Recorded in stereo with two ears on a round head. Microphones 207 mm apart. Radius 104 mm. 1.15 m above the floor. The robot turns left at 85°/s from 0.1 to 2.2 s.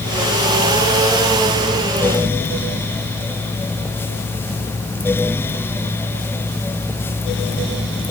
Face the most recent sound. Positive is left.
No sound to turn to.